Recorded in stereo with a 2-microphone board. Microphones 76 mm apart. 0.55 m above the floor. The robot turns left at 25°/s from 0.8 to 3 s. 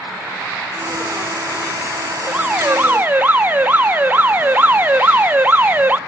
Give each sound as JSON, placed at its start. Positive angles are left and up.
{"t": 2.3, "sound": "an alarm", "side_deg": -15, "distance_m": 0.7}